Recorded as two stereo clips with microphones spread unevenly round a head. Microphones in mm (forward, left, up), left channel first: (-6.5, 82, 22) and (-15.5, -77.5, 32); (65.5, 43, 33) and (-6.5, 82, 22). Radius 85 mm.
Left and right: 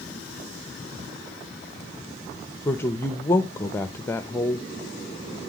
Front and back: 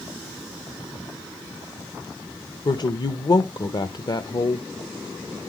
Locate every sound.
2.6 s a woman speaking: 10° left, 0.9 m